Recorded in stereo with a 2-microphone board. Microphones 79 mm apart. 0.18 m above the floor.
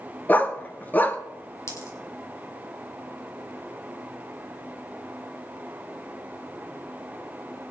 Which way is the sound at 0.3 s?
25° left (ahead or behind).